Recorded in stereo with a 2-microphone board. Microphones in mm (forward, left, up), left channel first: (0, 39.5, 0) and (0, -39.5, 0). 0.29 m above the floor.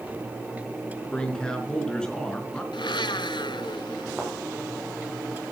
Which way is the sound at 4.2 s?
25° right (ahead or behind).